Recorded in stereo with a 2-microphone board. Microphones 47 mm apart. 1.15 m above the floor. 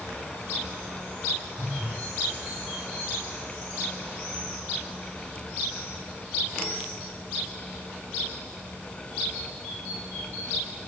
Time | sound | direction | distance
1.6 | a phone buzzing | 15° left (ahead or behind) | 6 m